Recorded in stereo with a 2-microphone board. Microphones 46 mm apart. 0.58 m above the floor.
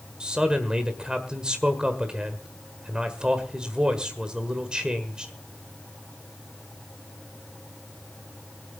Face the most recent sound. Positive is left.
turn(degrees=-20)  # may be behind; listen again after turning